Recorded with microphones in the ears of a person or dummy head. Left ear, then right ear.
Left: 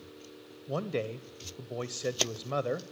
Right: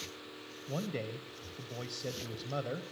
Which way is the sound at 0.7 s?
30° left (ahead or behind).